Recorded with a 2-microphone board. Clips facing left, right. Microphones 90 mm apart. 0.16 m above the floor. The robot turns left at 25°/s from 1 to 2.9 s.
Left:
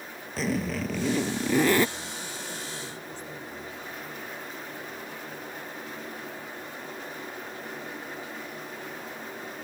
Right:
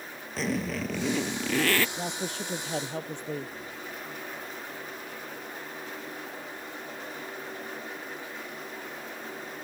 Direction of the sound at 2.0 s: 75° right (ahead or behind).